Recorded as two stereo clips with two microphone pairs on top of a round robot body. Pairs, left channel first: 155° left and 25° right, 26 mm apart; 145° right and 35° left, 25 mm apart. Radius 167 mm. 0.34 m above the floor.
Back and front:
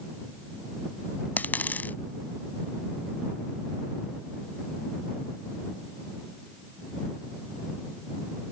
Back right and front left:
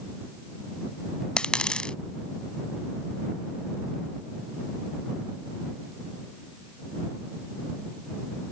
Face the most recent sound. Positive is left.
turn(degrees=160)